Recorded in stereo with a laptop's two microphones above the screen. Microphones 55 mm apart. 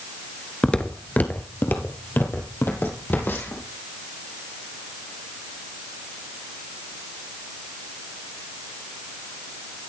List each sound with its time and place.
0.6 s footsteps: 15° left (ahead or behind), 0.9 m; by 3.6 s 40° left (ahead or behind), 3 m